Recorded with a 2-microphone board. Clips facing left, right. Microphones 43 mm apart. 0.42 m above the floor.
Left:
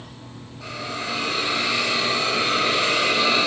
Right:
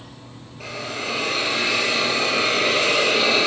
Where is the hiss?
65° right (ahead or behind), 1.3 m.